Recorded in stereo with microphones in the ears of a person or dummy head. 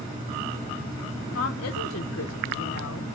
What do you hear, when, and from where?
1.3 s a woman speaking: 60° left (ahead or behind), 0.6 m